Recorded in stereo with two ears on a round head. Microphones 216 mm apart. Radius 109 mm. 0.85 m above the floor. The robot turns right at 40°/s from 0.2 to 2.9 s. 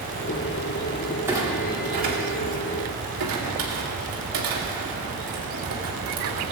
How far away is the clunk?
About 2.5 m.